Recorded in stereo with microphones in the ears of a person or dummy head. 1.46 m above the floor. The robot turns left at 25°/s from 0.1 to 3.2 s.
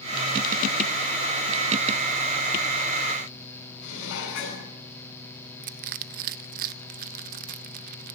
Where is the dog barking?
I don't hear a dog barking.